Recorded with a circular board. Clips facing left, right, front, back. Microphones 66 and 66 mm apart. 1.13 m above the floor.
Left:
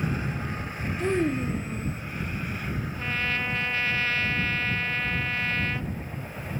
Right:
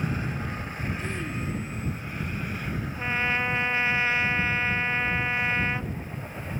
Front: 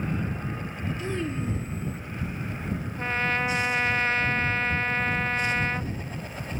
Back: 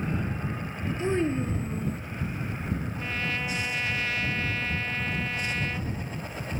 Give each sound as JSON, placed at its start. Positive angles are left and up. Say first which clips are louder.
{"t": 1.0, "sound": "a child speaking", "louder": "left 7 dB, back 6 dB", "azimuth_deg": 120}
{"t": 3.0, "sound": "a trumpet", "louder": "right 3 dB, front 9 dB", "azimuth_deg": -30}